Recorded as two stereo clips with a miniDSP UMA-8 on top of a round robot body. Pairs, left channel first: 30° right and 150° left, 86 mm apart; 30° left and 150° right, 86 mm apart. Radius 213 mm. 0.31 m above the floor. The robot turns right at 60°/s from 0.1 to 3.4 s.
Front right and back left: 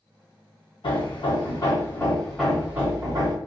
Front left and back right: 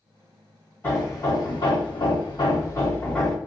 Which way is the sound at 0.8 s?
35° right.